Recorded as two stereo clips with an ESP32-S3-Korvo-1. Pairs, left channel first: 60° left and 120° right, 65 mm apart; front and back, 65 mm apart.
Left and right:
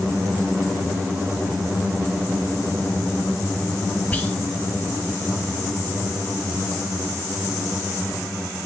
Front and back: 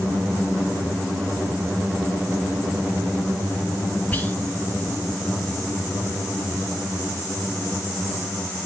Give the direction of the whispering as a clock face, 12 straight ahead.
11 o'clock.